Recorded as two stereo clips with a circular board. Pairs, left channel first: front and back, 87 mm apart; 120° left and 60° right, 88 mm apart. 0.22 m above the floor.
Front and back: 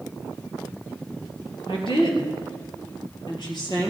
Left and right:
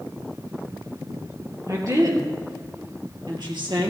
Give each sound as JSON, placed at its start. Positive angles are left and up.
{"t": 1.7, "sound": "a woman speaking", "azimuth_deg": -10, "distance_m": 3.5}